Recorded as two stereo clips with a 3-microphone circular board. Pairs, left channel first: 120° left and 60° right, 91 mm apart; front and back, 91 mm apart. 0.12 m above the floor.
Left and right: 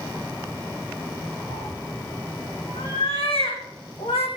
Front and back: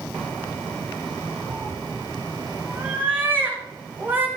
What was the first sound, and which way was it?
A cat meowing, 115° left.